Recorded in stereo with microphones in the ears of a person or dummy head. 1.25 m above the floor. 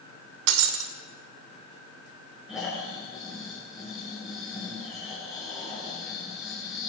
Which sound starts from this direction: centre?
Snoring, at 2.5 s.